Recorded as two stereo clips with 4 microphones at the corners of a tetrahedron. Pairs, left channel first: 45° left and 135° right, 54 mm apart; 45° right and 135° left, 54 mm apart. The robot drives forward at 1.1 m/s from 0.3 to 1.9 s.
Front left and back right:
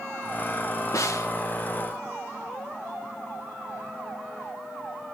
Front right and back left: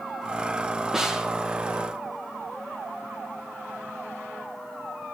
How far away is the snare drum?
About 2 m.